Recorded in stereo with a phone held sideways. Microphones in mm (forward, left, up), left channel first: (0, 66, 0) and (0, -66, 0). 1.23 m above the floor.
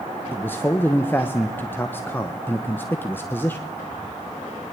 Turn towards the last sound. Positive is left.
turn(degrees=15)  # may be behind; listen again after turning